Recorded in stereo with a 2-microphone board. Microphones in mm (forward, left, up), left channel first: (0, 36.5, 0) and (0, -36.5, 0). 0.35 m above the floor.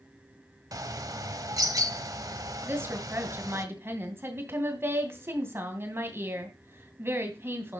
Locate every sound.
0.7 s a bird: 55° right (ahead or behind), 0.9 m
2.6 s a woman speaking: 35° right (ahead or behind), 2.5 m